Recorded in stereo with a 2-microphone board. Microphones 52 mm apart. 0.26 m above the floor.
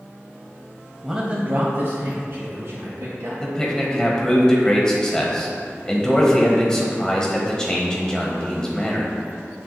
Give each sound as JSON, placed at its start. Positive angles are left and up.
{"t": 1.0, "sound": "a man speaking", "side_deg": 0, "distance_m": 1.0}
{"t": 3.4, "sound": "a man speaking", "side_deg": 15, "distance_m": 1.2}